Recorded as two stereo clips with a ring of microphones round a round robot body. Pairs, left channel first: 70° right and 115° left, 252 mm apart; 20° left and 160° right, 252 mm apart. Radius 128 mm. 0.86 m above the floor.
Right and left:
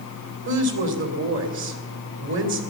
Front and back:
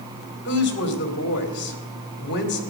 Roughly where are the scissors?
I don't hear scissors.